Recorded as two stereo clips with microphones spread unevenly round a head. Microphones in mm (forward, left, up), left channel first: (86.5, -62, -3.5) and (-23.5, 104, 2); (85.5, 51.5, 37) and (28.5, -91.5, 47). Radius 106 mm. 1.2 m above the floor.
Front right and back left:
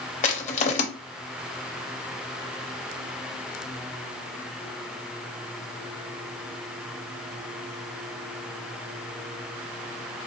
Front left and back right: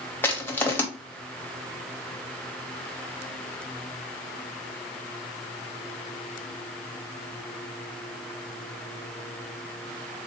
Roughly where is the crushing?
Ahead.